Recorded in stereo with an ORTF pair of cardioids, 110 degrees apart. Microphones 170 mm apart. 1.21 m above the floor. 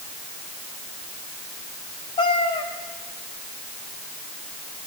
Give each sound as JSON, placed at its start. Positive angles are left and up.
{"t": 2.2, "sound": "a cat meowing", "azimuth_deg": 30, "distance_m": 3.5}